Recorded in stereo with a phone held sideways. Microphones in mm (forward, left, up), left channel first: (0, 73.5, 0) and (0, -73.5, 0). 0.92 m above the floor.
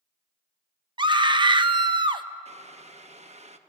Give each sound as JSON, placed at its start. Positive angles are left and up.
{"t": 1.0, "sound": "a scream", "side_deg": -35, "distance_m": 0.8}
{"t": 2.5, "sound": "boiling", "side_deg": -50, "distance_m": 0.9}